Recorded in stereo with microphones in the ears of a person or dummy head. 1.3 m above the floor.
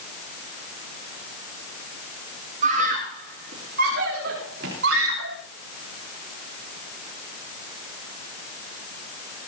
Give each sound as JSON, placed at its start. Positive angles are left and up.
{"t": 2.6, "sound": "a scream", "side_deg": -50, "distance_m": 3.0}